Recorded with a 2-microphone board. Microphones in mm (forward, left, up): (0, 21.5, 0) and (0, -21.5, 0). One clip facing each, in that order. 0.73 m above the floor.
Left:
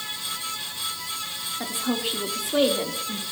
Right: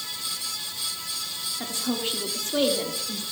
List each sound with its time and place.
1.6 s a woman speaking: 15° left (ahead or behind), 1.6 m